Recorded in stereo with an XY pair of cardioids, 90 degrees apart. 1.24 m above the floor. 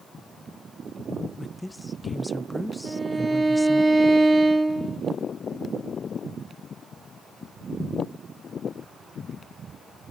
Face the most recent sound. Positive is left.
turn(degrees=-30)